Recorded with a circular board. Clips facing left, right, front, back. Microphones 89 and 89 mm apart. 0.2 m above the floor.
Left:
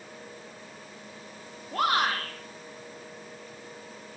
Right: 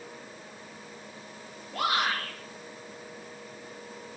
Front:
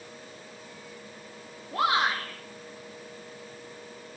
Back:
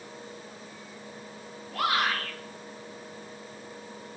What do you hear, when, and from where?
1.7 s a shout: 55° left, 4.5 m